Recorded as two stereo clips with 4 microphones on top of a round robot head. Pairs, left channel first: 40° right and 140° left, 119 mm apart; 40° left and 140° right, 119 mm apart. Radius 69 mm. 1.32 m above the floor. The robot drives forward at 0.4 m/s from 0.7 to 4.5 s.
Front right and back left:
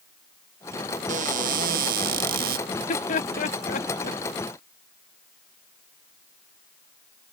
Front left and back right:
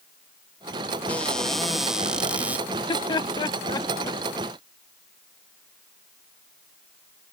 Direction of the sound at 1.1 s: 120° left.